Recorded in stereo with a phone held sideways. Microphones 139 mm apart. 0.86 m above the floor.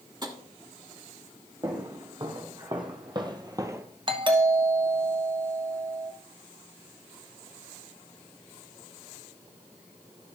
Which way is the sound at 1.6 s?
35° right (ahead or behind).